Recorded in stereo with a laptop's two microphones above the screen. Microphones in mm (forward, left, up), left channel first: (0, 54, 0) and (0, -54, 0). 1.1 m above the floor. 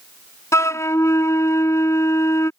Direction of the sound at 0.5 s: 25° left (ahead or behind).